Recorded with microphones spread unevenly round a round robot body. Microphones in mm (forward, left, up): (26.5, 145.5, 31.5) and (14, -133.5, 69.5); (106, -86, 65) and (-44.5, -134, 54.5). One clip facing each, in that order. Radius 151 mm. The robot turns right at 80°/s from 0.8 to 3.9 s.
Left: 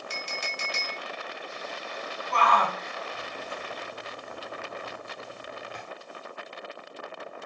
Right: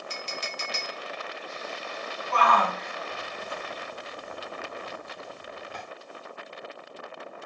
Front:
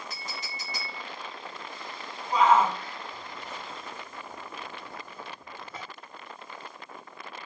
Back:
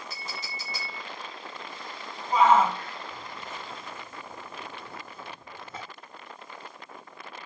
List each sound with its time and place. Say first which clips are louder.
0.1 s a clink: right 1 dB, even; 60° left, 0.6 m; by 1.0 s 75° left, 0.6 m
2.3 s a shout: right 1 dB, back 1 dB; 130° left, 1.8 m; by 5.8 s 100° right, 1.8 m